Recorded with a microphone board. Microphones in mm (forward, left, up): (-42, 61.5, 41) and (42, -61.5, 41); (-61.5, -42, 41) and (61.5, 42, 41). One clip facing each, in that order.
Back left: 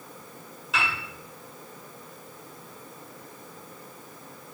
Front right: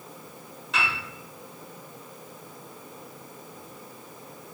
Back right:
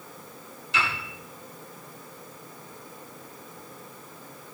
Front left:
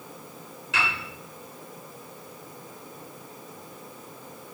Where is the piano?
35° left, 3 m.